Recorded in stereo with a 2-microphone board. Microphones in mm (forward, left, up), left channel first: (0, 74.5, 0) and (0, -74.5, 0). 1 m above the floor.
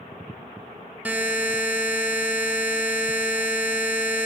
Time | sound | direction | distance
1.1 | a buzzer | 10° right (ahead or behind) | 0.6 m